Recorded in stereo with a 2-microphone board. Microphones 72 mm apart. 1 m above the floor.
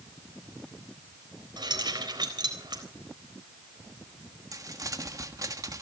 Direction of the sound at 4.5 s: 50° right (ahead or behind).